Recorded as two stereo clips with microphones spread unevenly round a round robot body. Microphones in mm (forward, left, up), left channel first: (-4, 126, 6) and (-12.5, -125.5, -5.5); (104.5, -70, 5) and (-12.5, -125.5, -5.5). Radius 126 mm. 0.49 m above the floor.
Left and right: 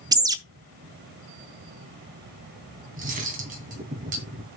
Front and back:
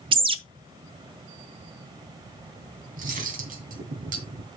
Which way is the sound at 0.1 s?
160° right.